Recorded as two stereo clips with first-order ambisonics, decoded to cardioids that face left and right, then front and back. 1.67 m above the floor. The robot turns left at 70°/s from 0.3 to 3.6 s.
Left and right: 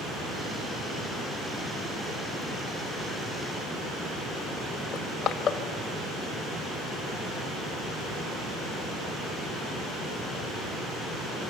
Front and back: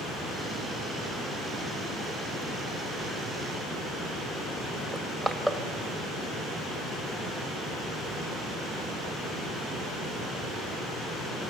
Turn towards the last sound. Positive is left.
turn(degrees=90)